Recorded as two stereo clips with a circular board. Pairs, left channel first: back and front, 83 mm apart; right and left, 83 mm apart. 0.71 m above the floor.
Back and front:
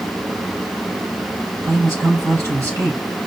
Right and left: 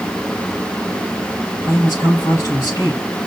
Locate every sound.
1.6 s a man speaking: 45° right, 4 m